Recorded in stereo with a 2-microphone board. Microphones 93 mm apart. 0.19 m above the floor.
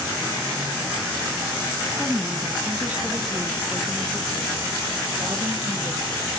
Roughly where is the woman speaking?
Centre.